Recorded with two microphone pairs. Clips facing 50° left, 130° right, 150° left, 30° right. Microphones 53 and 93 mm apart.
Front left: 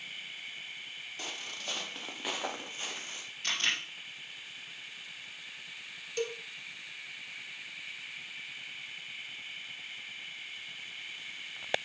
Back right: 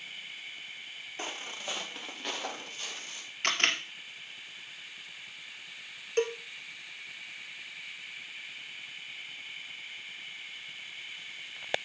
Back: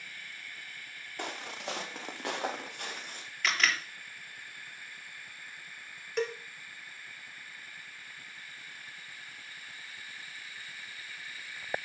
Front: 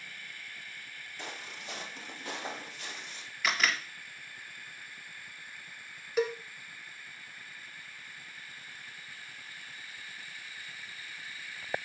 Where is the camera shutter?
115° right, 1.9 m.